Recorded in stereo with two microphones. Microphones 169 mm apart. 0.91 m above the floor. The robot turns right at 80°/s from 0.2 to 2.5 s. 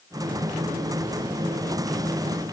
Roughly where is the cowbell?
No cowbell in this recording.